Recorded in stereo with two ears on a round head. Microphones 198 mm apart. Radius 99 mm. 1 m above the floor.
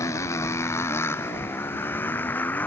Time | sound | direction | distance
0.0 | a motorcycle | 15° left (ahead or behind) | ?